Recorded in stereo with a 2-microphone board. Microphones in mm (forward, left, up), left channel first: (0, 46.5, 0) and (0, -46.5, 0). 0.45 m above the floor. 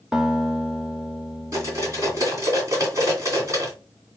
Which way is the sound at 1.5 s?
35° right (ahead or behind).